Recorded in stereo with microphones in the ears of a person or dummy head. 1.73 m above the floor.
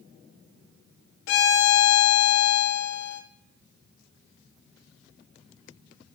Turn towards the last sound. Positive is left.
turn(degrees=65)  # may be behind; listen again after turning